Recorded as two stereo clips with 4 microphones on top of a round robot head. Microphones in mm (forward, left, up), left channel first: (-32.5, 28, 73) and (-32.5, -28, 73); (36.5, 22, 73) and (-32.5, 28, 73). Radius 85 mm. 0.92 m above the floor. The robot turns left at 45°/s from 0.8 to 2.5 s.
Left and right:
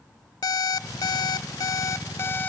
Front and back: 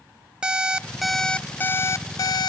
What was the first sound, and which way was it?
An alarm clock, 95° left.